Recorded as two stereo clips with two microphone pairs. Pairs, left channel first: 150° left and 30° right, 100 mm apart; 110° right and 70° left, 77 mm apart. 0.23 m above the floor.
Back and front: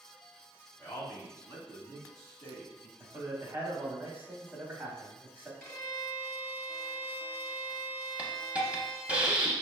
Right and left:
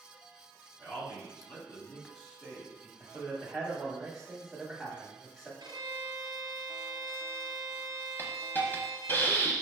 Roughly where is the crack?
I don't hear a crack.